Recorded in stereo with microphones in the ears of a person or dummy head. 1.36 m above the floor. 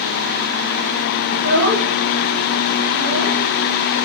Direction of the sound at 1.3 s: 70° right (ahead or behind).